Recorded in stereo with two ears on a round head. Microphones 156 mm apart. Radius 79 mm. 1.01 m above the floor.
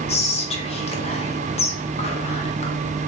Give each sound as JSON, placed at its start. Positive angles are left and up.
{"t": 0.1, "sound": "whispering", "side_deg": 35, "distance_m": 0.6}